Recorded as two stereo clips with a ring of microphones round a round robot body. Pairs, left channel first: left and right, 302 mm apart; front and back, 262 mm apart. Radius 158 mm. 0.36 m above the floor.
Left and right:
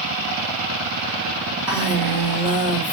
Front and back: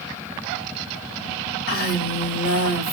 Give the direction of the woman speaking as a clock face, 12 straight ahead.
12 o'clock.